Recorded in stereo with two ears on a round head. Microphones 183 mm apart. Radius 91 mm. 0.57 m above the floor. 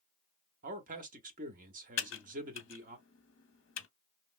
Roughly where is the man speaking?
Right.